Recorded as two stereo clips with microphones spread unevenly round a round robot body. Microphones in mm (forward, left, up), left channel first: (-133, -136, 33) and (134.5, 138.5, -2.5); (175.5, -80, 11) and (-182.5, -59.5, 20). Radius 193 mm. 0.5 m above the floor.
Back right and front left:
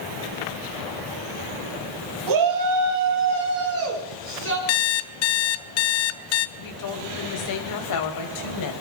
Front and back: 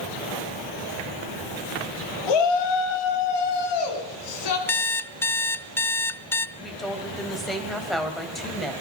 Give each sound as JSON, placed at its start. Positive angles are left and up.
{"t": 2.3, "sound": "a shout", "azimuth_deg": 10, "distance_m": 3.0}
{"t": 4.7, "sound": "an alarm clock", "azimuth_deg": -85, "distance_m": 0.6}
{"t": 6.6, "sound": "a woman speaking", "azimuth_deg": -90, "distance_m": 3.0}